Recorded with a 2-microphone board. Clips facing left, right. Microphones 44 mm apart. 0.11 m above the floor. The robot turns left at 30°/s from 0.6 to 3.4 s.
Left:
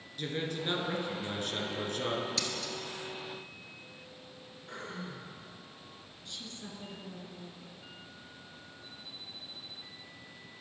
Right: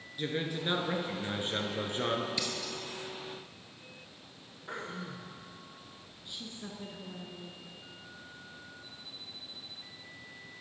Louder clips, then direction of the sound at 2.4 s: Even; 15° right (ahead or behind).